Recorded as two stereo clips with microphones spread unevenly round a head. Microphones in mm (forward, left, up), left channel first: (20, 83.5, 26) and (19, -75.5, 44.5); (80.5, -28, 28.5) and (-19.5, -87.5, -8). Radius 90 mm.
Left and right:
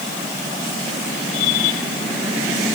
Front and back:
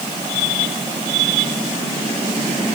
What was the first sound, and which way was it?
Only background noise.